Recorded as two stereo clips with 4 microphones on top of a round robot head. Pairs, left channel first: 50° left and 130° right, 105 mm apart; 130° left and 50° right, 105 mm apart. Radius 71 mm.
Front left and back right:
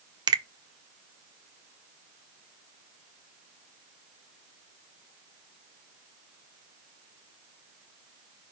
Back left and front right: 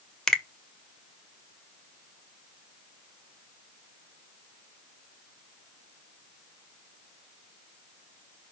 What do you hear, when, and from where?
0.3 s a finger snap: 145° right, 0.9 m